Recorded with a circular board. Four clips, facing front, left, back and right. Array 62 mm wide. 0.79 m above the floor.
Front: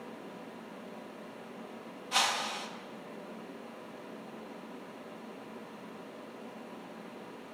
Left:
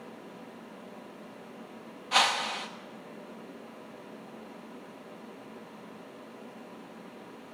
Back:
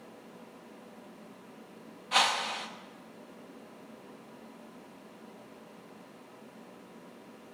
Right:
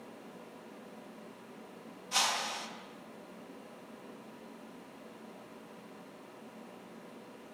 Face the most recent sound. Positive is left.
turn(degrees=115)